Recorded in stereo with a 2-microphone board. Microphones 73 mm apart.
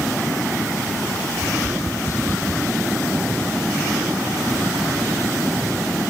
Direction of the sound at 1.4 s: 45° left (ahead or behind).